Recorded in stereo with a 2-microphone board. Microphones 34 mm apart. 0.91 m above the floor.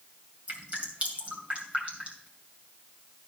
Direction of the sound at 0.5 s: 40° right (ahead or behind).